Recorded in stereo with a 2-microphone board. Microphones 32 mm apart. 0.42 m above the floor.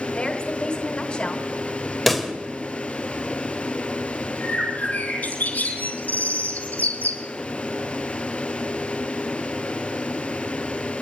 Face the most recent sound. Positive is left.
turn(degrees=60)  # may be behind; listen again after turning